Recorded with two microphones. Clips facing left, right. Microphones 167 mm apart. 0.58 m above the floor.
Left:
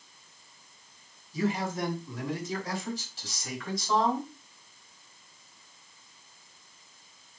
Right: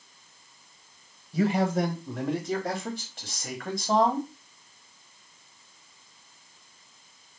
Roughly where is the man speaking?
Right.